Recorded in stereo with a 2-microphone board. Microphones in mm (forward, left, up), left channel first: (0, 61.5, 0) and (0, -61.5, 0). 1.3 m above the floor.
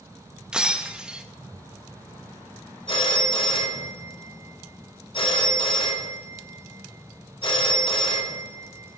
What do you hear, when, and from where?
0.5 s breaking glass: 5° right (ahead or behind), 0.9 m
2.9 s a phone ringing: 50° left (ahead or behind), 2 m